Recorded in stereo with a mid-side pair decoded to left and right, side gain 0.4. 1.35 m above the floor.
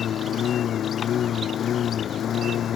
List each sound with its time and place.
0.0 s a lawn mower: 65° left